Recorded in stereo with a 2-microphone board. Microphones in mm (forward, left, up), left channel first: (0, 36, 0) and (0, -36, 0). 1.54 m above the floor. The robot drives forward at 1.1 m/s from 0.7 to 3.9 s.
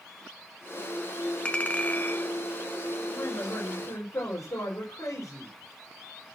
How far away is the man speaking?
About 6.5 m.